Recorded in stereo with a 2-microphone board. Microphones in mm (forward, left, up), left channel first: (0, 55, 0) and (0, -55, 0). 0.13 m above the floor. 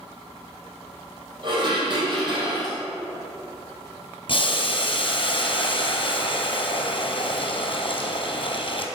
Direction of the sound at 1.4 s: 45° right (ahead or behind).